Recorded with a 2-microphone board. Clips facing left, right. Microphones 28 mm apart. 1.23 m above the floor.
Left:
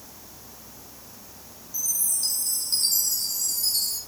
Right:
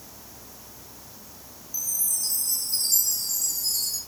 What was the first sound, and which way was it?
A chime, 65° left (ahead or behind).